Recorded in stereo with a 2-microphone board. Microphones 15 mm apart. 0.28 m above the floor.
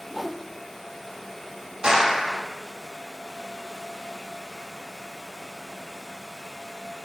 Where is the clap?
50° right (ahead or behind), 8 m.